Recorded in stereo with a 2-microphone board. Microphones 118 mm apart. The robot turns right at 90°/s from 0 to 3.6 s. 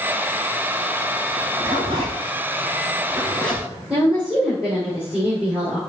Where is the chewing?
No chewing in this recording.